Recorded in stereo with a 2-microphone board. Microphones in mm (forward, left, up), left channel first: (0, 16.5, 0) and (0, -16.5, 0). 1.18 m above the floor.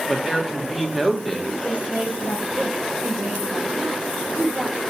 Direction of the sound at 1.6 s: 45° right (ahead or behind).